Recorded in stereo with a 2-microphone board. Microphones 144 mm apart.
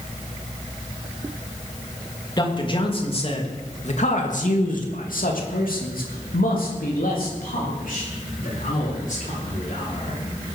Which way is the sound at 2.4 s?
30° left (ahead or behind).